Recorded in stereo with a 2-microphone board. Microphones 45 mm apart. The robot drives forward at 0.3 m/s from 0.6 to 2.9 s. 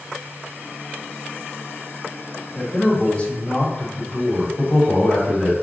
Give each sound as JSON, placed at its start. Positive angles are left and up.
{"t": 2.5, "sound": "a man speaking", "side_deg": 20, "distance_m": 2.5}
{"t": 4.6, "sound": "a man speaking", "side_deg": 25, "distance_m": 3.0}